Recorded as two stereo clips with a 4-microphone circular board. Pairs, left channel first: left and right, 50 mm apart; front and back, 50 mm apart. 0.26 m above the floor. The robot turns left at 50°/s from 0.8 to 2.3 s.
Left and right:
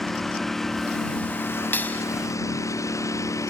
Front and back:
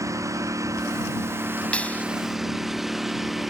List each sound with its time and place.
0.0 s a lawn mower: 175° left; by 3.5 s 95° left
1.7 s a clap: 60° left; by 2.0 s 40° left